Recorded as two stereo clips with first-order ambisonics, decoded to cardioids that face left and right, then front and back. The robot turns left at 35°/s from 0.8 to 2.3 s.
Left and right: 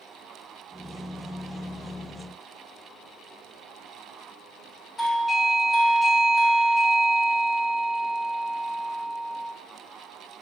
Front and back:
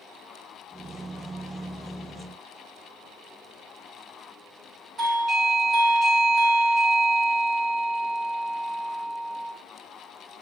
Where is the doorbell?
150° left, 1.0 m.